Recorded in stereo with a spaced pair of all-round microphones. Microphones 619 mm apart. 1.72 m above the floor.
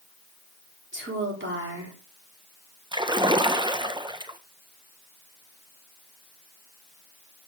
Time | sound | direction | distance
0.9 | a woman speaking | 20° right (ahead or behind) | 4 m
2.9 | a splash | 5° right (ahead or behind) | 0.9 m